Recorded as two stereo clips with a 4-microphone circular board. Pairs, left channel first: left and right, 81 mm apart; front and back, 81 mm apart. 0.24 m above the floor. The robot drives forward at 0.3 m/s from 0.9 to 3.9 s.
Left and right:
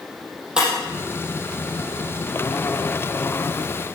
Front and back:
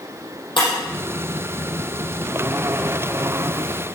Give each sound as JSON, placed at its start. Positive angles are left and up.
{"t": 0.6, "sound": "breaking glass", "azimuth_deg": -10, "distance_m": 4.5}